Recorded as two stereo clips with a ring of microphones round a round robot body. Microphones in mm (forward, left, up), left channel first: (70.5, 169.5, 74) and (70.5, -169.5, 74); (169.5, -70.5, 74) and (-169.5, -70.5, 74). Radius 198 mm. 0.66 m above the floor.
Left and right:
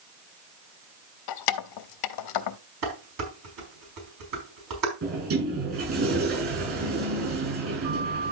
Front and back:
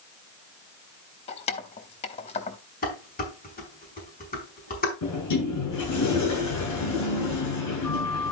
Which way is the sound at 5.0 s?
40° right.